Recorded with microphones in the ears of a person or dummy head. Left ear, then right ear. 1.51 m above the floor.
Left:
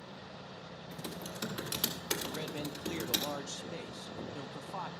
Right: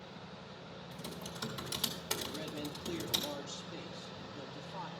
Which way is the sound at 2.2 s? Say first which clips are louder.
Left 2 dB; 60° left (ahead or behind).